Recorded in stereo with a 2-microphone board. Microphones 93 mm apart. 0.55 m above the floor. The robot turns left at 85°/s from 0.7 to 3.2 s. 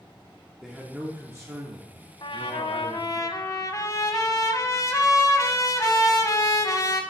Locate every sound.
0.6 s a man speaking: 5° right, 0.9 m; by 3.2 s 145° left, 0.9 m
2.2 s a trumpet: 120° left, 0.9 m; by 7.0 s 40° left, 0.9 m